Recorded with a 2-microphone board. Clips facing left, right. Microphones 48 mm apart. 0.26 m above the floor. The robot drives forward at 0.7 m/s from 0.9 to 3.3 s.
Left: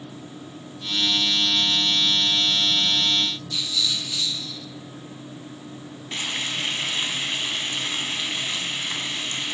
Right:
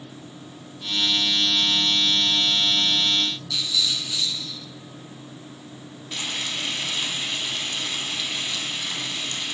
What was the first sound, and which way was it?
A rattle, 85° right.